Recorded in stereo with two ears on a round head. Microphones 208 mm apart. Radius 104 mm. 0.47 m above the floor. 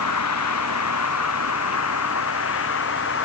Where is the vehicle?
85° left; by 3.3 s 60° left (ahead or behind).